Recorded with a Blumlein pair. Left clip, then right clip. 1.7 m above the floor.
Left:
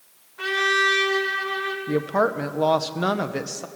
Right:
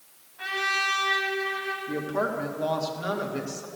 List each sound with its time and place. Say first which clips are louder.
0.4 s a trumpet: left 6 dB; 50° left, 1.7 m
1.9 s a woman speaking: left 8 dB; 60° left, 0.8 m